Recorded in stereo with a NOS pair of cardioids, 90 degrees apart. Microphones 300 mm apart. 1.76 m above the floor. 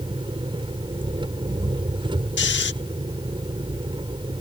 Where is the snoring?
40° left.